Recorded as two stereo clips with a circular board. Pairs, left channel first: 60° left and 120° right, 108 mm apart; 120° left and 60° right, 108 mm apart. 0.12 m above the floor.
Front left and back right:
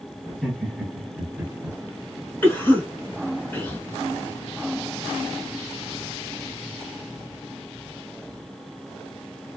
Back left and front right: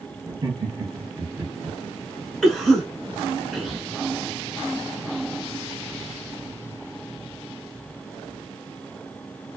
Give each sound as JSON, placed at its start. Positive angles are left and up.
{"t": 0.3, "sound": "laughter", "azimuth_deg": -30, "distance_m": 1.4}
{"t": 2.4, "sound": "a cough", "azimuth_deg": 40, "distance_m": 1.1}